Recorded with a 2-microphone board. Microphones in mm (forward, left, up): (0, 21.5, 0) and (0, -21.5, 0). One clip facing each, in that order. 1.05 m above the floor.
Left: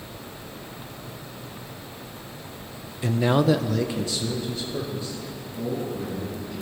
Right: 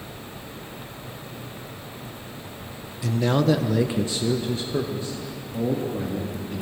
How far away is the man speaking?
About 0.6 m.